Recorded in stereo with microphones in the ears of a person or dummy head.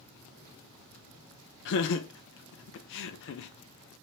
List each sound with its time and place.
1.6 s laughter: 60° left (ahead or behind), 0.5 m